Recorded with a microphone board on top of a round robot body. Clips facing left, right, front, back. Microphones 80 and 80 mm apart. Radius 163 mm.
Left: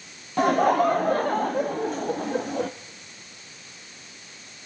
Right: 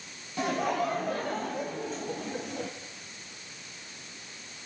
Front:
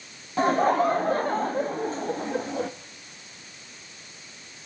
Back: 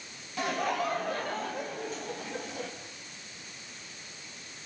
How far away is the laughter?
About 1.0 m.